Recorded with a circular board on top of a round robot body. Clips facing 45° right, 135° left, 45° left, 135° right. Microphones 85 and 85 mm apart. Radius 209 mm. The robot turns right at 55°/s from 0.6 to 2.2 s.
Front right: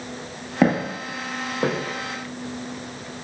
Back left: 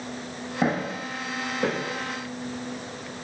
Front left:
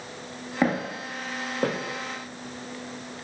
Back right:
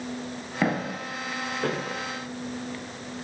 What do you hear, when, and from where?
0.6 s footsteps: 30° right, 0.6 m; by 3.1 s 45° left, 2.5 m